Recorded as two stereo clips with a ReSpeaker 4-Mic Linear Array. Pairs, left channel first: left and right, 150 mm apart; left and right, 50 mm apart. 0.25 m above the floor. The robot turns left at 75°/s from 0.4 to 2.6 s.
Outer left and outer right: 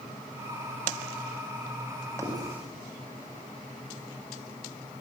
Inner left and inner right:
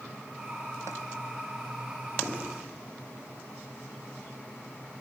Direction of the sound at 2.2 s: 40° right (ahead or behind).